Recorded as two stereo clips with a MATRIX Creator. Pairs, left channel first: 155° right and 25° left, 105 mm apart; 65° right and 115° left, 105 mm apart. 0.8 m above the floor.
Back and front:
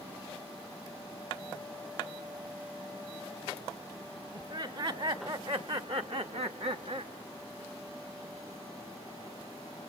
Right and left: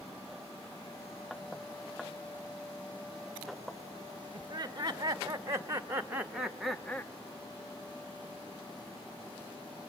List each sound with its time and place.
4.3 s laughter: 60° left, 2.5 m; by 7.1 s straight ahead, 1.0 m